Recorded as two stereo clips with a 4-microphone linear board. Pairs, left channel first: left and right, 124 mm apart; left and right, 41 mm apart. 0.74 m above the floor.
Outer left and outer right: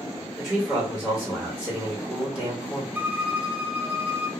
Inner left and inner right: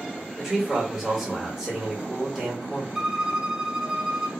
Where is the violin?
15° right (ahead or behind), 0.6 m.